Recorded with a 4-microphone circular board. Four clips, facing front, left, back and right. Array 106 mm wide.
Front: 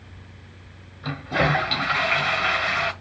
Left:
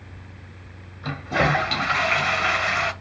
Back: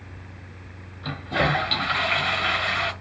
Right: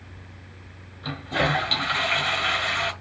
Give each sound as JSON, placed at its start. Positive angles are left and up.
{"t": 1.0, "sound": "a toilet flushing", "azimuth_deg": 60, "distance_m": 0.7}